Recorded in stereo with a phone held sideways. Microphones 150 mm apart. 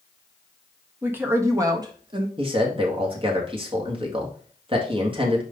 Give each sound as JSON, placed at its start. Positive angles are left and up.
{"t": 1.0, "sound": "a woman speaking", "side_deg": -10, "distance_m": 1.6}
{"t": 2.4, "sound": "a man speaking", "side_deg": -35, "distance_m": 1.9}